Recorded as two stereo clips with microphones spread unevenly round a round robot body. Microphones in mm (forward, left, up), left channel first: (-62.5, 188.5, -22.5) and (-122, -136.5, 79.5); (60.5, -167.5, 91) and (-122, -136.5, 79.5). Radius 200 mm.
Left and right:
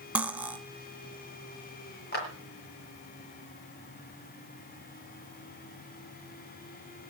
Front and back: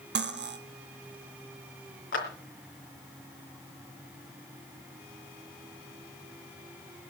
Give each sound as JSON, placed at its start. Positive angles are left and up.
{"t": 0.1, "sound": "cutlery clinking", "azimuth_deg": 165, "distance_m": 2.0}
{"t": 2.1, "sound": "a clap", "azimuth_deg": 20, "distance_m": 4.0}